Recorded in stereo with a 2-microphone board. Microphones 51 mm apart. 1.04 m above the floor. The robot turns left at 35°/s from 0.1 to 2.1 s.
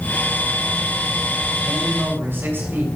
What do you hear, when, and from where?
1.6 s a man speaking: 65° right (ahead or behind), 5 m; by 2.9 s 50° right (ahead or behind), 5 m